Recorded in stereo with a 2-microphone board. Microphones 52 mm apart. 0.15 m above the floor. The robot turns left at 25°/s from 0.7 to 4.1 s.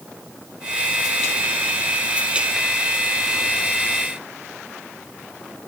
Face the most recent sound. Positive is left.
No sound to turn to.